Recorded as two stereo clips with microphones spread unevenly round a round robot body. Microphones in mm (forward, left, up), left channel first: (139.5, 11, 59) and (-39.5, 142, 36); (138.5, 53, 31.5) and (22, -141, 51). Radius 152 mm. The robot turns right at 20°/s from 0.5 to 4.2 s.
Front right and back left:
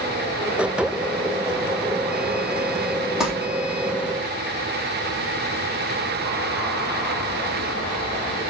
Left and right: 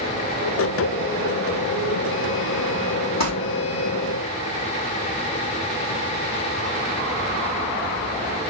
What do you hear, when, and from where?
3.2 s crumpling: 55° left, 4 m; by 3.3 s 60° left, 4 m